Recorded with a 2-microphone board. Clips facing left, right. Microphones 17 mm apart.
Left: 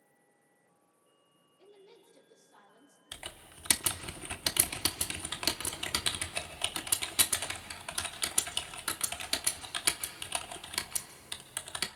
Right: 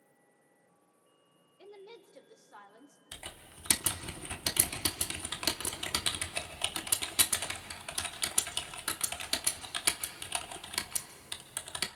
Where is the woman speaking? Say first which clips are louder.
Right 6 dB; 40° right (ahead or behind), 1.9 m; by 3.0 s 55° right (ahead or behind), 1.8 m.